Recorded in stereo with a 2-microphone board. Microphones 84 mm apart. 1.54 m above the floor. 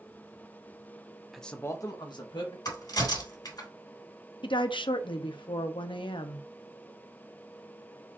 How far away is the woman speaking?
About 0.5 m.